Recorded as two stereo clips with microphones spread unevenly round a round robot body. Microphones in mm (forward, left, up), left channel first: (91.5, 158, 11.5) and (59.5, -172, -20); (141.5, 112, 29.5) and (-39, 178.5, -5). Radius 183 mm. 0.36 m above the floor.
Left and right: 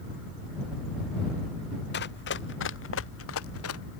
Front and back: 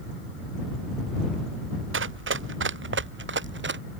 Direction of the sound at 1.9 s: 150° left.